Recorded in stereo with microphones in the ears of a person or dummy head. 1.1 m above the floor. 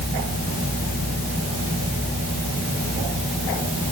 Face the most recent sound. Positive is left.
No sound to turn to.